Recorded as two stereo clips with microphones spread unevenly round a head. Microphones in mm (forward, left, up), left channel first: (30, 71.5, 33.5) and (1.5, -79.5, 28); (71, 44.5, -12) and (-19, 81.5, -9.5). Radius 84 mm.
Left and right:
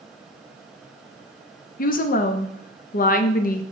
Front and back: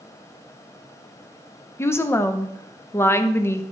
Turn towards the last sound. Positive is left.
turn(degrees=45)